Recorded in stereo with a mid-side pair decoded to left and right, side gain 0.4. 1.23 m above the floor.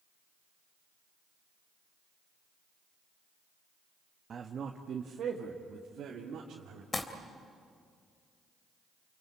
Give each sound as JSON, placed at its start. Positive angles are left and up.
{"t": 4.3, "sound": "a man speaking", "azimuth_deg": -50, "distance_m": 1.4}
{"t": 6.9, "sound": "crumpling", "azimuth_deg": 30, "distance_m": 3.0}